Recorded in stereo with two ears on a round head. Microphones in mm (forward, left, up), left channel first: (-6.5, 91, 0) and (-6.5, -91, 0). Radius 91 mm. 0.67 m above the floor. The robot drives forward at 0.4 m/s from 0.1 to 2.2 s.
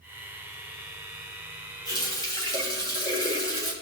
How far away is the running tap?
About 2 m.